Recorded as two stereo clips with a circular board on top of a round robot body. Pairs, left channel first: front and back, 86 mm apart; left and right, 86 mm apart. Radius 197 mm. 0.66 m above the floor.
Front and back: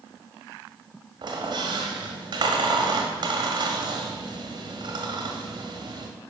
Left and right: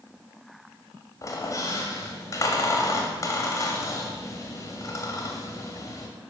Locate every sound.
1.2 s a squeak: 145° left, 0.5 m